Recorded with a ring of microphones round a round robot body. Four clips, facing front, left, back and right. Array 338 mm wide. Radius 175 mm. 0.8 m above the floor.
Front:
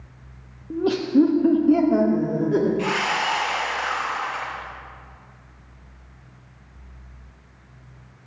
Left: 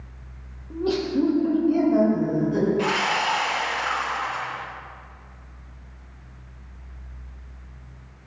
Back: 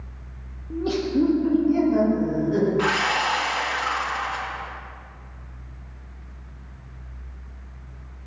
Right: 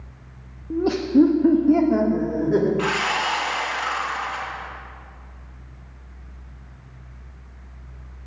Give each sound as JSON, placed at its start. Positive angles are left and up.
{"t": 0.7, "sound": "laughter", "azimuth_deg": -60, "distance_m": 1.3}
{"t": 2.8, "sound": "sawing", "azimuth_deg": -150, "distance_m": 4.0}